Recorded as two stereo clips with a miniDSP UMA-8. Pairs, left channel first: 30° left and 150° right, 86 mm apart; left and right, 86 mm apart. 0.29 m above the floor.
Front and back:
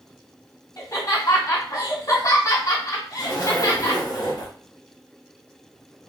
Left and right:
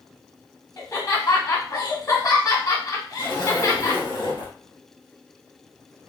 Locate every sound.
0.8 s laughter: 50° left, 2 m
3.2 s a zipper: 65° left, 2.0 m